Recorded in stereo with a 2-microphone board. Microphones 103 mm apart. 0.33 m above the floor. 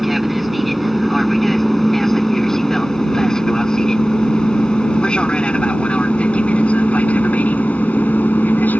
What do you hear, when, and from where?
0.0 s an aircraft: centre (ahead or behind); by 8.8 s 15° left (ahead or behind)